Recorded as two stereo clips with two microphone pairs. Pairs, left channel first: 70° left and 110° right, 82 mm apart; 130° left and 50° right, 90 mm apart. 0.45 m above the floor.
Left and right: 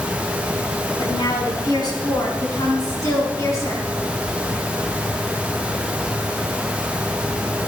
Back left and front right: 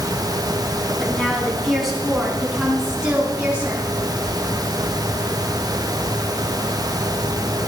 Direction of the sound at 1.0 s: 50° left.